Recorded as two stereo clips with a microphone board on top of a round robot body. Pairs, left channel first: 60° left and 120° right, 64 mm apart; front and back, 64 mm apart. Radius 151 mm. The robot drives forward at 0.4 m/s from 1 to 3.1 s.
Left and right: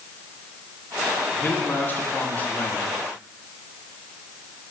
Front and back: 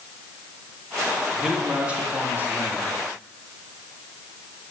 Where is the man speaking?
100° left, 1.3 m; by 2.9 s 130° left, 1.5 m.